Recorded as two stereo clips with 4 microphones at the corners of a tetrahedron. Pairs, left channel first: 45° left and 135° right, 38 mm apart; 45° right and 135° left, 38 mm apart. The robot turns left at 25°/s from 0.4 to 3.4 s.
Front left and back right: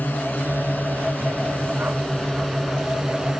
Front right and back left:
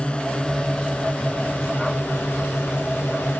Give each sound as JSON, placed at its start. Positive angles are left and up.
{"t": 0.0, "sound": "a drone", "azimuth_deg": 15}